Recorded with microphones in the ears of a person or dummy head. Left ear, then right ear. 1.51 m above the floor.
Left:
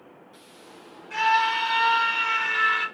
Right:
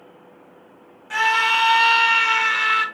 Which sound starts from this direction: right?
A scream, at 1.1 s.